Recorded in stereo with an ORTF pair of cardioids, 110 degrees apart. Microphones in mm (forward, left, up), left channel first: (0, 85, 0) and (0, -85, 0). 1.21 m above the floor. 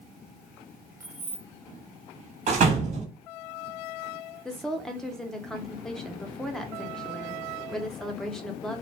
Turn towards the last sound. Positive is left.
turn(degrees=5)